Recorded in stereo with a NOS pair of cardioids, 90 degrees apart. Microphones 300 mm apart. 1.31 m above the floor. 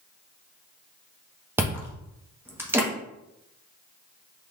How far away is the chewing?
About 1.2 m.